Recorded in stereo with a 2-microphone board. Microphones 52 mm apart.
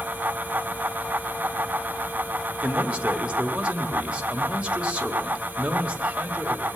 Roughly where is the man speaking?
Right.